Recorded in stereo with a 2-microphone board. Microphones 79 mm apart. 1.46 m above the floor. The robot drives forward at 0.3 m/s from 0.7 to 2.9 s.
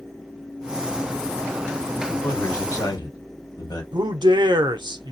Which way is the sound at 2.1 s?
60° left (ahead or behind).